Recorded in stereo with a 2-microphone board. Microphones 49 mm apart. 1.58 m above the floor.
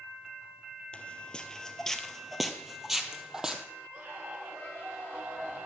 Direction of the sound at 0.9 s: 25° left (ahead or behind).